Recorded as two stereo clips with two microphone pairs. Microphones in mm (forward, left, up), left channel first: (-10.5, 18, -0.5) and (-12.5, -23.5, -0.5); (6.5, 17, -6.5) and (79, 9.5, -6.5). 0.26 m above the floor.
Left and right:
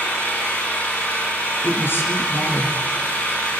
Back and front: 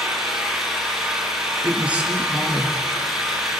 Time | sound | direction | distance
0.0 | an engine running | 80° left | 7 m
1.6 | a woman speaking | 70° left | 4.5 m